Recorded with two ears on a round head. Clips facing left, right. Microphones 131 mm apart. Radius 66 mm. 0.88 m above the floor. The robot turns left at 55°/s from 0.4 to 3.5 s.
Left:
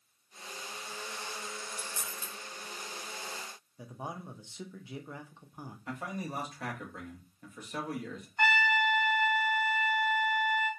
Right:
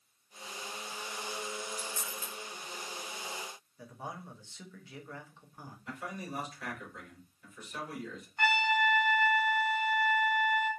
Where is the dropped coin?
5° left (ahead or behind), 0.6 m; by 2.3 s 30° left (ahead or behind), 0.6 m.